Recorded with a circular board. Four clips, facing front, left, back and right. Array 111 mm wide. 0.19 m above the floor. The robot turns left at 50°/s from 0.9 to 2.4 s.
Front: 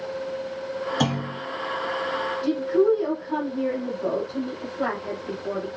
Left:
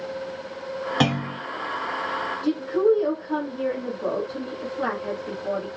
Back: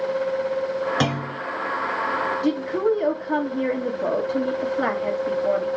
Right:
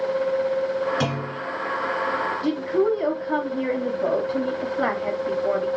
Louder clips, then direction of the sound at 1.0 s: Left 2 dB, back 1 dB; 135° left.